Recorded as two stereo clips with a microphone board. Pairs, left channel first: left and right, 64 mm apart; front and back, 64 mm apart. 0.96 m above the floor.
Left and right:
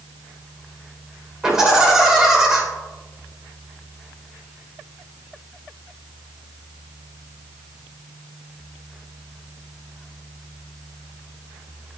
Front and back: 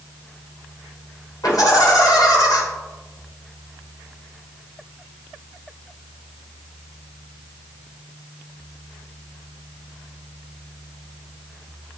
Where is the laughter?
10° right, 3 m.